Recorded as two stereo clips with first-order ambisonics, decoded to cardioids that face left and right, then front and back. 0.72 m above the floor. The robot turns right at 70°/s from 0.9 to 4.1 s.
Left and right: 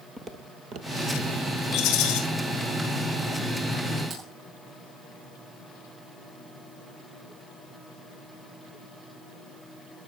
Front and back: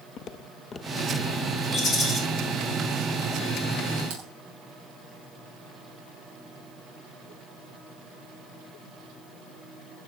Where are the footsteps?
20° right, 0.8 m; by 1.6 s 45° right, 1.3 m.